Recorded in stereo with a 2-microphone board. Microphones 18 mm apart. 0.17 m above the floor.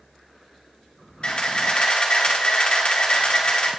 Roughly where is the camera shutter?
Left.